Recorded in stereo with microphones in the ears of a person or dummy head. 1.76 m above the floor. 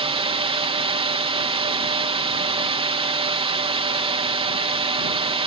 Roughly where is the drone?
Right.